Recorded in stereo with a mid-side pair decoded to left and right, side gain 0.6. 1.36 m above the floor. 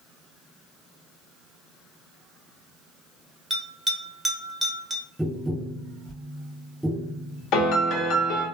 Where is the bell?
10° right, 1.0 m.